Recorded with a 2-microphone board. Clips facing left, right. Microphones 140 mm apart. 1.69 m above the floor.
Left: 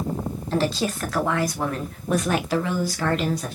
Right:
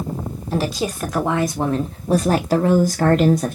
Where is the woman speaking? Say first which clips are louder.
Right 1 dB; 10° right (ahead or behind), 1.5 m; by 3.6 s 50° right (ahead or behind), 0.9 m.